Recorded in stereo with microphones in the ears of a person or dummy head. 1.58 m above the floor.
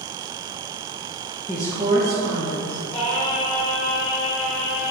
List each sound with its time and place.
1.5 s a woman speaking: 20° left (ahead or behind), 0.5 m; by 2.8 s 55° right (ahead or behind), 1.9 m
2.9 s singing: 40° left (ahead or behind), 1.0 m